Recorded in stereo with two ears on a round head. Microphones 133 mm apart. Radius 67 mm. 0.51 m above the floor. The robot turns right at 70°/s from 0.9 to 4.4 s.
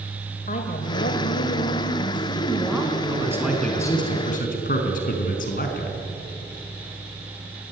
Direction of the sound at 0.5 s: 55° left.